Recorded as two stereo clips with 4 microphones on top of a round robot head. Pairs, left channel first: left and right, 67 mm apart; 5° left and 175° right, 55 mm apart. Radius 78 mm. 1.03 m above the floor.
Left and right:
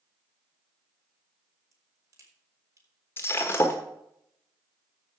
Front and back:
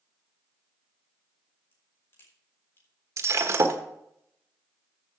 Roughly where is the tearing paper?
I don't hear tearing paper.